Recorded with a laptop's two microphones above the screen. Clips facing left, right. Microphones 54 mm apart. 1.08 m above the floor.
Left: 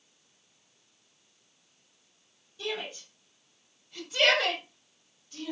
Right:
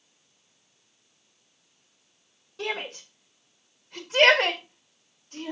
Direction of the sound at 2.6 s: 75° right (ahead or behind).